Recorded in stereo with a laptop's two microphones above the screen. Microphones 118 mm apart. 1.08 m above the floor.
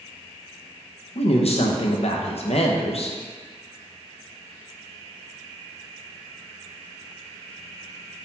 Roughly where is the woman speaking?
Left.